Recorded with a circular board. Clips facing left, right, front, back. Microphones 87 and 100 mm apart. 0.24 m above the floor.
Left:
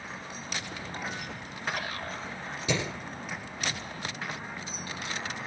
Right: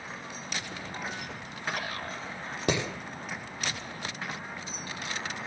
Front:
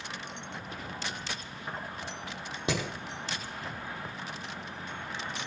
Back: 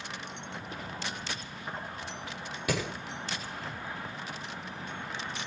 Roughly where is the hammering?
Ahead right.